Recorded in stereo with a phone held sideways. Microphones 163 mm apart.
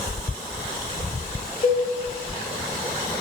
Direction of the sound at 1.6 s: 55° left (ahead or behind).